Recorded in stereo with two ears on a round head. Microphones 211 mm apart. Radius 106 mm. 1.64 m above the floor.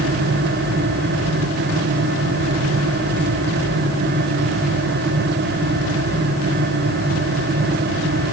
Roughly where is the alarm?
No alarm in this recording.